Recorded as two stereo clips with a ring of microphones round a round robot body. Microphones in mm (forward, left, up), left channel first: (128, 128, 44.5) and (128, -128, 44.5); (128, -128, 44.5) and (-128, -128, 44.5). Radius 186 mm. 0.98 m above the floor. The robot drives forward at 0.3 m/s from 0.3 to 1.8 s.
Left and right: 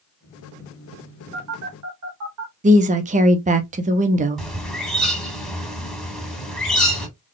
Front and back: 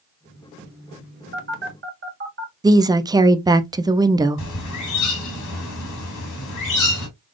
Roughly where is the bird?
Ahead.